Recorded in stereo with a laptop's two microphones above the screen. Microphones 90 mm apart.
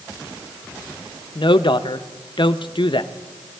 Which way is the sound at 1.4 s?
60° left (ahead or behind).